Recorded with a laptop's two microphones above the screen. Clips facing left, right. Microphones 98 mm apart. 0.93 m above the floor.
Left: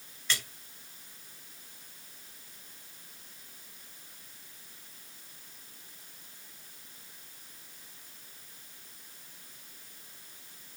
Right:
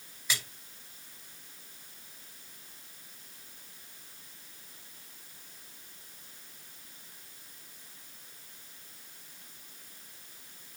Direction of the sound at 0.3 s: 10° right (ahead or behind).